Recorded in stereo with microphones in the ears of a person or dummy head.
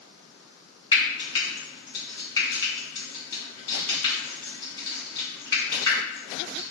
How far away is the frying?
About 1.4 m.